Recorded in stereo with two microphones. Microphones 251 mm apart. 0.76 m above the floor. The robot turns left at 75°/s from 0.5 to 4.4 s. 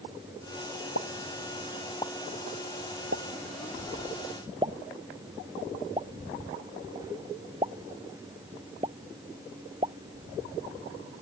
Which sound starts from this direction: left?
A pop, at 0.9 s.